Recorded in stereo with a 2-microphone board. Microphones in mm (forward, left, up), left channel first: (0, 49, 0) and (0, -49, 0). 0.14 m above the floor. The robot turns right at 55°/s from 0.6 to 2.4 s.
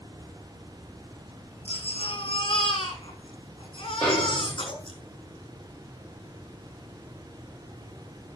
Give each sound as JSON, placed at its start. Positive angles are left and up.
{"t": 1.6, "sound": "a baby crying", "azimuth_deg": 80, "distance_m": 4.5}
{"t": 4.0, "sound": "a snare drum", "side_deg": 15, "distance_m": 8.0}